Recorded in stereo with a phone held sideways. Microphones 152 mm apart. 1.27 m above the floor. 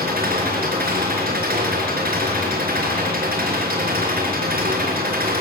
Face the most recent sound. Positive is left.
turn(degrees=-80)